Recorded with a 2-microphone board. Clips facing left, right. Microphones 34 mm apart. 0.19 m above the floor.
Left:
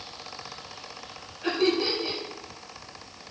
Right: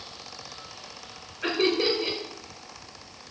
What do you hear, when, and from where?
1.4 s laughter: 55° right (ahead or behind), 3 m